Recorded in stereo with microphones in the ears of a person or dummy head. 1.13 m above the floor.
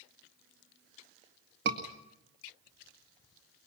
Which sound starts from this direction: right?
A scream, at 1.6 s.